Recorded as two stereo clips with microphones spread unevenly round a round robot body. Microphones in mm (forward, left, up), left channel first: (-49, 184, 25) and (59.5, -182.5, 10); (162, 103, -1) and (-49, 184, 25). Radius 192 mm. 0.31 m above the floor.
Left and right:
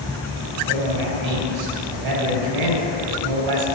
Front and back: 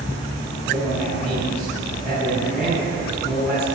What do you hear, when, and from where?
0.7 s a man speaking: 105° right, 6 m